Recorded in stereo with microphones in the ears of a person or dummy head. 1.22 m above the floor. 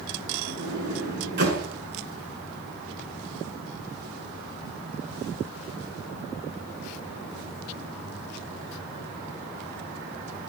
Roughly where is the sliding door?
Right.